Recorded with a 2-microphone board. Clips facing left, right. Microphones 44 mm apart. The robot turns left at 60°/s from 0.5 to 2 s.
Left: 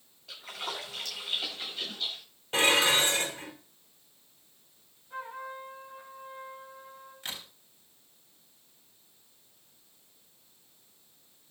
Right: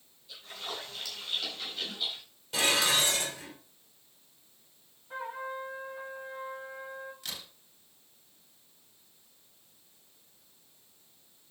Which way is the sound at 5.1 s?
40° right (ahead or behind).